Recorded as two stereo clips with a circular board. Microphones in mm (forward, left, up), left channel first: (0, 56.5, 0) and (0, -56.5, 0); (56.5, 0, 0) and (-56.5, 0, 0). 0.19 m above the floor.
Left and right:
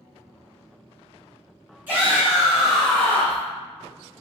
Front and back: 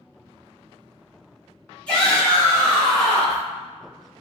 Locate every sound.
1.9 s a shout: 60° right, 1.6 m; by 3.4 s 65° left, 1.6 m